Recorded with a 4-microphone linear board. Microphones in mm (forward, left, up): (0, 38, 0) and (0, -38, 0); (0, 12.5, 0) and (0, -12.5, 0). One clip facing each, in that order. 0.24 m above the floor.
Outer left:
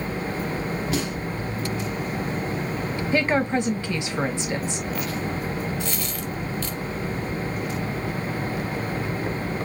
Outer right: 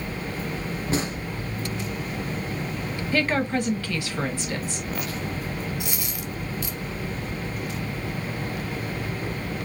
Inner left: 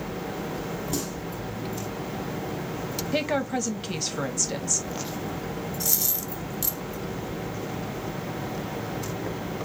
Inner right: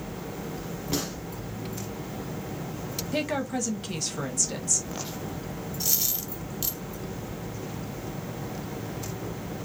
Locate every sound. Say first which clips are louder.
0.9 s a gunshot: outer right 3 dB, inner right 3 dB; 35° right (ahead or behind), 1.8 m
3.1 s a woman speaking: outer left 2 dB, inner left 2 dB; 20° left (ahead or behind), 1.2 m
5.8 s a dropped coin: outer left 3 dB, inner right 2 dB; 15° right (ahead or behind), 1.1 m